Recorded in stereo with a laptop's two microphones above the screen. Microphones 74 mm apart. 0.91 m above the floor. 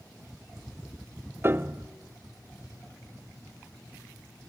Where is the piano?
30° right (ahead or behind), 0.5 m.